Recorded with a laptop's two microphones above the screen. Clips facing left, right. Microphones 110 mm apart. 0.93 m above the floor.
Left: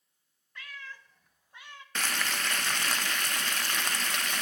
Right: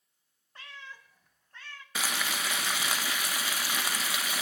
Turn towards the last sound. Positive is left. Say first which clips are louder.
# even
turn(degrees=-10)  # may be behind; listen again after turning